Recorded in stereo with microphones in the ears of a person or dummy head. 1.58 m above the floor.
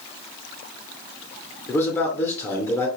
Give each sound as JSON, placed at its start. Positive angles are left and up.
{"t": 1.7, "sound": "a man speaking", "side_deg": 10, "distance_m": 0.8}